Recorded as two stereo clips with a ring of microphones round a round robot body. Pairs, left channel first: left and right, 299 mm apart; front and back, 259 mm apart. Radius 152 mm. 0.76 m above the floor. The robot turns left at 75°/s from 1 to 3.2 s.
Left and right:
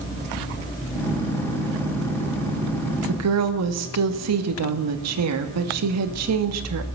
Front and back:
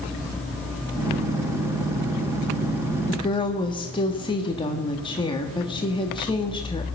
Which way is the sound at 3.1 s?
60° right.